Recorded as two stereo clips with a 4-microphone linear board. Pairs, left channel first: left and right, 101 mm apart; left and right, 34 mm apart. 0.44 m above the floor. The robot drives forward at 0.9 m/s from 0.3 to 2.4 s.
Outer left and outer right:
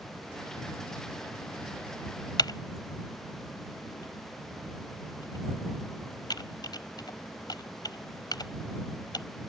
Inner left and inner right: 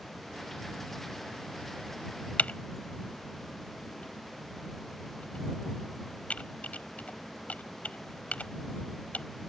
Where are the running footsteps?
No running footsteps in this recording.